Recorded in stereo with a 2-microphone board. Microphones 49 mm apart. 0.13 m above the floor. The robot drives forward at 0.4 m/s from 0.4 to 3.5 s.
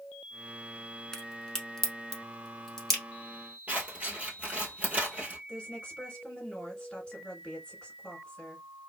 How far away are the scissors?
About 1.2 m.